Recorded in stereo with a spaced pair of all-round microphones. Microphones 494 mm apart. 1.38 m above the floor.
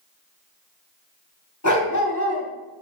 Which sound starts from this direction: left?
A dog barking, at 1.6 s.